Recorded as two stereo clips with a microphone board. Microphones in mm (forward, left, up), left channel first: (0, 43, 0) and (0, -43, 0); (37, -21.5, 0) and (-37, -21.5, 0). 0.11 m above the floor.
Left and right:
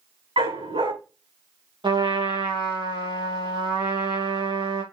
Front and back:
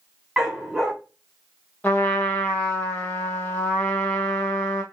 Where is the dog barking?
100° right, 5.5 m.